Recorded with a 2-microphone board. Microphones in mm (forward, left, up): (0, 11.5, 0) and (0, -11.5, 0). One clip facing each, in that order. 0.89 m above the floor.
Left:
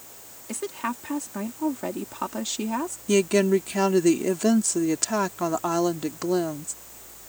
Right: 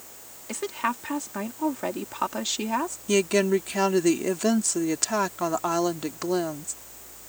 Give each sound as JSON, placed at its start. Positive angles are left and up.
{"t": 0.5, "sound": "a woman speaking", "side_deg": -15}
{"t": 3.1, "sound": "a woman speaking", "side_deg": -5}